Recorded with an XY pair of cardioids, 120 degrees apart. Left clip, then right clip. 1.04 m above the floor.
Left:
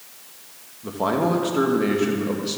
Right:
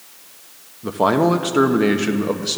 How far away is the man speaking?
About 0.9 m.